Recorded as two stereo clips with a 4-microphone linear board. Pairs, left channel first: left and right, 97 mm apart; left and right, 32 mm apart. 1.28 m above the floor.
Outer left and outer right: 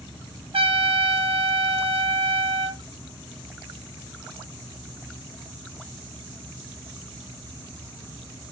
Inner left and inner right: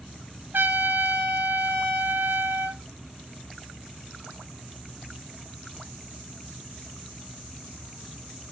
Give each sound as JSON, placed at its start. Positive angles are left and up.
{"t": 0.5, "sound": "a trumpet", "side_deg": -75, "distance_m": 0.7}